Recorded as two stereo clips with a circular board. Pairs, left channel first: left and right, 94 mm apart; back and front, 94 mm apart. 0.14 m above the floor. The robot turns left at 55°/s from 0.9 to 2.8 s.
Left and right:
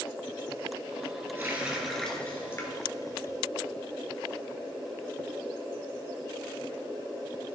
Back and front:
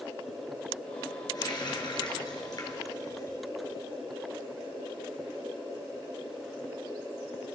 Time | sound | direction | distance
1.4 | a running tap | 150° right | 1.6 m